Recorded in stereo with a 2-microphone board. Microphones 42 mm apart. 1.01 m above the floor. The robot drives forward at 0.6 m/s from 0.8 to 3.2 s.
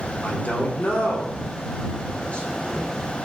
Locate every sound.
0.2 s a man speaking: 40° left (ahead or behind), 2 m; by 2.9 s 25° left (ahead or behind), 3.5 m